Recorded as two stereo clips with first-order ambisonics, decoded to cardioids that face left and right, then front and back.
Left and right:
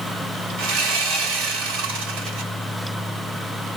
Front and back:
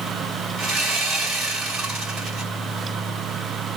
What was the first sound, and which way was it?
Sawing, 115° right.